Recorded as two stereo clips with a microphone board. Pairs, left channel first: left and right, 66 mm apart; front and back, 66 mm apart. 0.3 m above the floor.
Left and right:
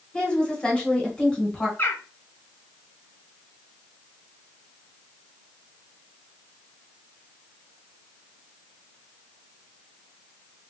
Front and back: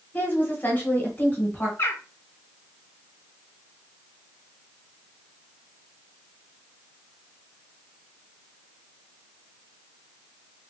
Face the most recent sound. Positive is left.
turn(degrees=40)